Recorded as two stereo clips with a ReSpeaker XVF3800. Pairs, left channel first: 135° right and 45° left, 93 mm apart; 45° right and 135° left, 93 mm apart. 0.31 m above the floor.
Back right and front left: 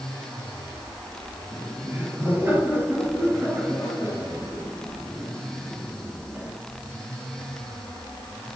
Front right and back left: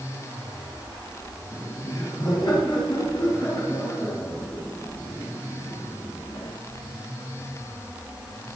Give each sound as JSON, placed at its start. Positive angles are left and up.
{"t": 1.5, "sound": "laughter", "azimuth_deg": -20, "distance_m": 5.5}